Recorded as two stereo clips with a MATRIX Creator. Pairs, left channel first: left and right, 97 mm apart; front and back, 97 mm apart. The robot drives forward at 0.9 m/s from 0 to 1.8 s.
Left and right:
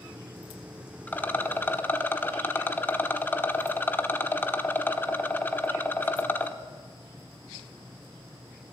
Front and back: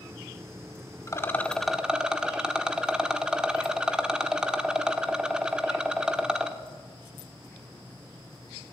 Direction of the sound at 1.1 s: 30° left.